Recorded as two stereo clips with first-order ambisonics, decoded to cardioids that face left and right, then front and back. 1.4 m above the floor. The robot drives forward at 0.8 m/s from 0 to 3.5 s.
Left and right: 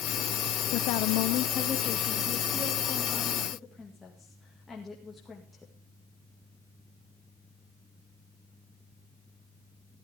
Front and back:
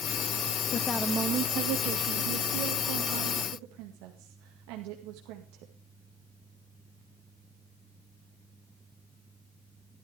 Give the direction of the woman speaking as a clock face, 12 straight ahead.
10 o'clock.